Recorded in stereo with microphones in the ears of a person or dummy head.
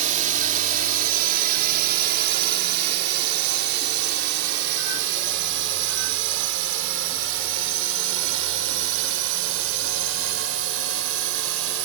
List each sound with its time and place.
0.0 s a drone: 45° right (ahead or behind); by 11.8 s 80° right